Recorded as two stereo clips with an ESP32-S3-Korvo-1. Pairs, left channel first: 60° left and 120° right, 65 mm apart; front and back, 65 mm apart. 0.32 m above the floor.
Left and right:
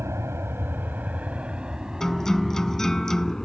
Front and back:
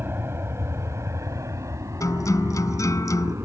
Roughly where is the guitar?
Ahead.